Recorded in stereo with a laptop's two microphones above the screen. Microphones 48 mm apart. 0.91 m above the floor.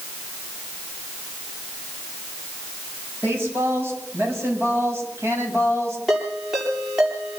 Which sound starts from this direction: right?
A woman speaking, at 3.2 s.